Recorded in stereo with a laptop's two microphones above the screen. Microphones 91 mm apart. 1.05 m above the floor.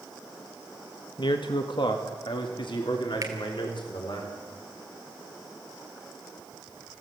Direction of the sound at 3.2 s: 40° right (ahead or behind).